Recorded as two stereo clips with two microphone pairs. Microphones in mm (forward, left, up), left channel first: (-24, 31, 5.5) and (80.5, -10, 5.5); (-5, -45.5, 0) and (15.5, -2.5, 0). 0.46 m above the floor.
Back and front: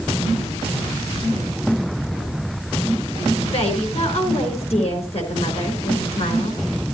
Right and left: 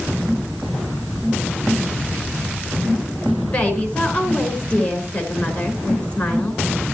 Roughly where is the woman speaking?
Behind.